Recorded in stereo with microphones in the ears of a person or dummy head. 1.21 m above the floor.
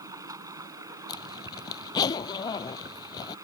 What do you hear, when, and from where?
0.0 s running water: 20° right (ahead or behind)
1.1 s a zipper: 25° left (ahead or behind)